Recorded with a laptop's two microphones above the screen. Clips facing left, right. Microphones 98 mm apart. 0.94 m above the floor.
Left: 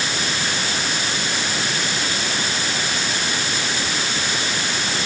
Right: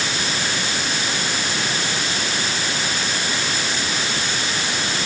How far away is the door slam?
I don't hear a door slam.